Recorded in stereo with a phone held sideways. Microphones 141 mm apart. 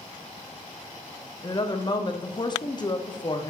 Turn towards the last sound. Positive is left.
turn(degrees=30)  # may be behind; listen again after turning